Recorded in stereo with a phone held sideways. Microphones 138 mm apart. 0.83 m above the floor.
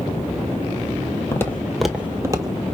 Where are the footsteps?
20° left (ahead or behind), 1.0 m; by 2.6 s 35° right (ahead or behind), 0.9 m.